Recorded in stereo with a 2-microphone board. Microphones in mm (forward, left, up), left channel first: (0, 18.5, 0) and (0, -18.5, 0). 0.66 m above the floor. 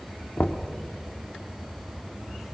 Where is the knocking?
45° left (ahead or behind), 1.3 m.